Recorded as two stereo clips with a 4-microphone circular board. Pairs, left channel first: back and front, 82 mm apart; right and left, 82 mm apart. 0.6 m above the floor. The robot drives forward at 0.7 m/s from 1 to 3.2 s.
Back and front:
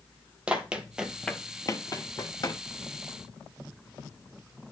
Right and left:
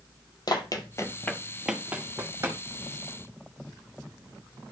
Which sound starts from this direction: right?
Running footsteps, at 0.5 s.